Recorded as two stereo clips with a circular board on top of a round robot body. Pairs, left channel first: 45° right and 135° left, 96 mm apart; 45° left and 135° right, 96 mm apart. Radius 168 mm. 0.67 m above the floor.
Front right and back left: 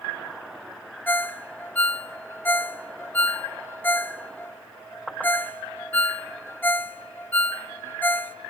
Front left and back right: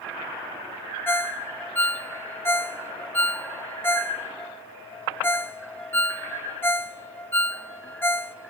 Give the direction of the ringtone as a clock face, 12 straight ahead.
12 o'clock.